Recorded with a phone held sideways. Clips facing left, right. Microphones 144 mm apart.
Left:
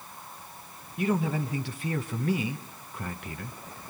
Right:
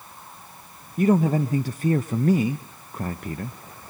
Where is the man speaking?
40° right (ahead or behind), 0.7 m.